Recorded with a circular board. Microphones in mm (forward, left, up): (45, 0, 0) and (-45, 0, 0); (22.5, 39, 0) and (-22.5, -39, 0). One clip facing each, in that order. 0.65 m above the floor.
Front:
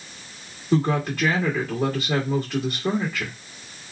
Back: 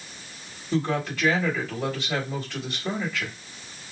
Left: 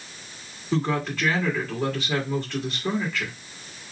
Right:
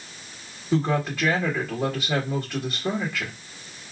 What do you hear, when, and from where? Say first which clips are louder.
0.7 s a woman speaking: front 4 dB, right 2 dB; 40° right, 1.8 m